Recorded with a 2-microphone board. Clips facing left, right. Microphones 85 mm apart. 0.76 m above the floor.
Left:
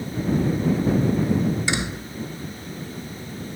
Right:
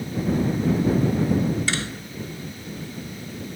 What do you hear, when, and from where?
1.7 s a door slam: 15° left (ahead or behind)